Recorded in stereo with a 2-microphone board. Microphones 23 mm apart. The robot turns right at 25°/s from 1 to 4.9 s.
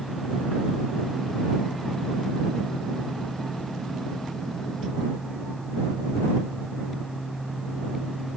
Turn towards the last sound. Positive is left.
No sound to turn to.